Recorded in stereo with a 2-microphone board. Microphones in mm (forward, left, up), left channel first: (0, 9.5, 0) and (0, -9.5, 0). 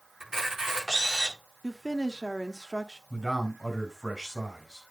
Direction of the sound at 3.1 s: 10° right (ahead or behind).